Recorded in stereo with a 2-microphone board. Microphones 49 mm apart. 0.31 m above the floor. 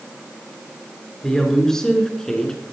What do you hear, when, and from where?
1.2 s a woman speaking: 10° left (ahead or behind), 5 m; by 2.6 s 15° left (ahead or behind), 4 m